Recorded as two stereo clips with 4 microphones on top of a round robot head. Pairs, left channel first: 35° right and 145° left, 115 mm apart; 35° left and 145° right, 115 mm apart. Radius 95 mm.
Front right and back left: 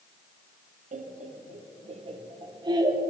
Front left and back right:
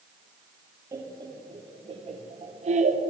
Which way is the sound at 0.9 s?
150° left.